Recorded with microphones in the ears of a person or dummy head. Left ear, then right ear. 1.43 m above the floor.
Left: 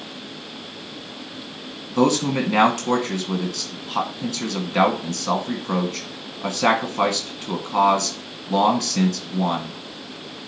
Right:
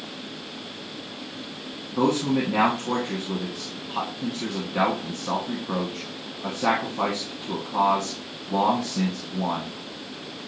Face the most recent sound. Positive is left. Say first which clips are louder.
# left 3 dB
turn(degrees=80)